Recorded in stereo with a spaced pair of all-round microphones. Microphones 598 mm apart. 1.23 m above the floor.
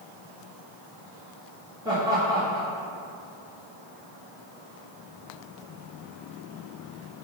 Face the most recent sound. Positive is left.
turn(degrees=-5)  # may be behind; listen again after turning